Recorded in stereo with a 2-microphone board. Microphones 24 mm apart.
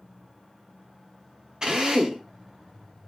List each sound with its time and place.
1.6 s a drill: 35° right (ahead or behind), 0.8 m